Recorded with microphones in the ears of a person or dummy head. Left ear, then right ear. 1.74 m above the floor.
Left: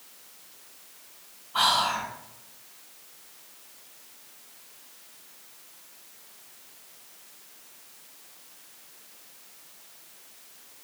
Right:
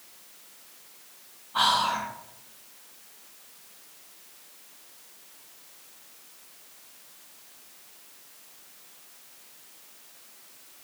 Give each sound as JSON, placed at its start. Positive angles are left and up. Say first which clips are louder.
{"t": 1.5, "sound": "whispering", "louder": "even", "side_deg": -5, "distance_m": 0.8}